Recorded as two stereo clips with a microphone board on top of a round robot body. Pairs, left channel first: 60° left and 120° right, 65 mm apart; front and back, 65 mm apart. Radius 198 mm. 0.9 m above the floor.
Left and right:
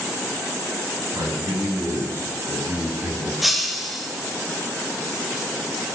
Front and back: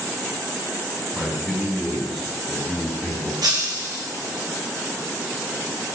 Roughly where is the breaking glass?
Behind left.